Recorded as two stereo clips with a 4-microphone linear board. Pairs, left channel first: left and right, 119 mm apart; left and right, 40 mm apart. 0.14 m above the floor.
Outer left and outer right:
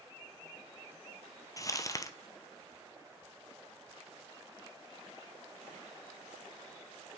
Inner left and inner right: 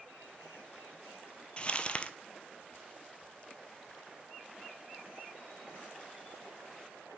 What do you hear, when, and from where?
1.6 s crumpling: 30° left (ahead or behind), 0.7 m